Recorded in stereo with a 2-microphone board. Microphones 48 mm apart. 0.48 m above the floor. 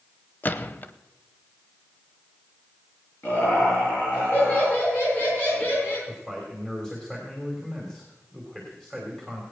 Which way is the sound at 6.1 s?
10° left (ahead or behind).